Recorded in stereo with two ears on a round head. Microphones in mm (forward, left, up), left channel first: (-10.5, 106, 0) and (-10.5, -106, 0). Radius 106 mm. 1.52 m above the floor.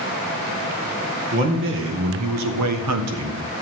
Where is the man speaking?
50° right (ahead or behind), 1.8 m; by 3.4 s 65° right (ahead or behind), 1.5 m.